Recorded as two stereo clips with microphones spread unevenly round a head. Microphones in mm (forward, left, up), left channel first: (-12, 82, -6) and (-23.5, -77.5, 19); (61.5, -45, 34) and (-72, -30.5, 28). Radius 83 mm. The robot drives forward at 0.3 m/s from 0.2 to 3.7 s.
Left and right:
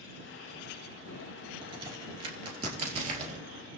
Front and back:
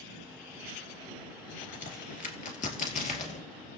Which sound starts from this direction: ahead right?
A crack, at 1.6 s.